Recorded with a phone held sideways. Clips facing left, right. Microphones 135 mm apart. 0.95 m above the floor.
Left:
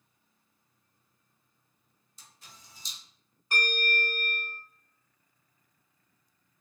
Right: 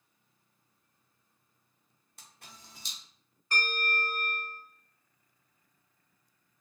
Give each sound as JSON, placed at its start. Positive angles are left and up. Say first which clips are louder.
{"t": 2.2, "sound": "a camera shutter", "louder": "right 2 dB", "side_deg": -60, "distance_m": 0.6}
{"t": 3.5, "sound": "a bell", "louder": "left 2 dB", "side_deg": 15, "distance_m": 1.5}